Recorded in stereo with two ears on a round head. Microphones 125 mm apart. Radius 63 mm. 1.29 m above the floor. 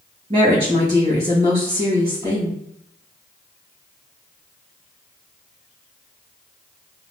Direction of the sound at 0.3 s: 40° right (ahead or behind).